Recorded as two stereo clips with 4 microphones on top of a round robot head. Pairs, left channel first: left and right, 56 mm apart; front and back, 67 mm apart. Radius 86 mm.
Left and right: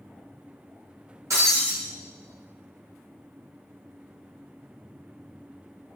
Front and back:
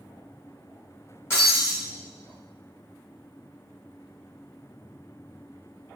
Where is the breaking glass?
60° right, 1.8 m.